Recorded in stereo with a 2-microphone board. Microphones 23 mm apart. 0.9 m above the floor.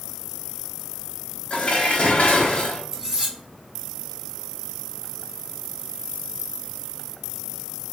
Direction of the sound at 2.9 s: 20° right (ahead or behind).